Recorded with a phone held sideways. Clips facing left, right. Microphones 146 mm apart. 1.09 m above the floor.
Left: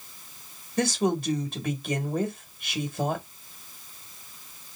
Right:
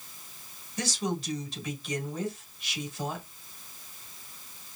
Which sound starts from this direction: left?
A woman speaking, at 0.8 s.